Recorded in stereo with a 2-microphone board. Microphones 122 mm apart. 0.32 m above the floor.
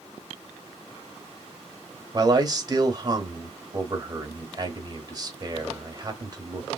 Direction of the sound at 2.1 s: 35° right (ahead or behind).